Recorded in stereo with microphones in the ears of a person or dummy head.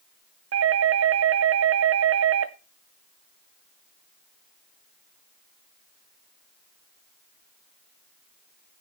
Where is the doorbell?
65° right (ahead or behind), 0.8 m.